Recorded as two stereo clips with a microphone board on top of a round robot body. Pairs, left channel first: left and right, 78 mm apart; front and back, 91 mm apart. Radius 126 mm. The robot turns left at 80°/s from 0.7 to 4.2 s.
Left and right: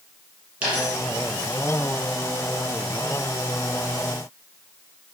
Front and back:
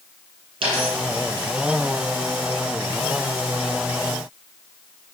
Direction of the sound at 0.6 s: 155° right.